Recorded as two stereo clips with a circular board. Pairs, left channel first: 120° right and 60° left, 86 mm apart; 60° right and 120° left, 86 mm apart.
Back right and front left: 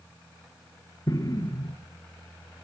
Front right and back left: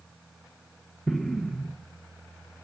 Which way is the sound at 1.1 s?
145° right.